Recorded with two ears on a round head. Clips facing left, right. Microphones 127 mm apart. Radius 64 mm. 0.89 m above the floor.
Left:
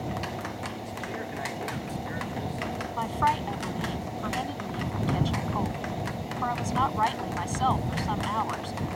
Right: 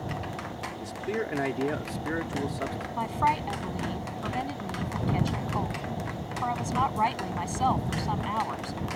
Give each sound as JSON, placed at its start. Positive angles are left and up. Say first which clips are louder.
{"t": 0.8, "sound": "a man speaking", "louder": "right 4 dB", "side_deg": -70}
{"t": 3.0, "sound": "a woman speaking", "louder": "even", "side_deg": -10}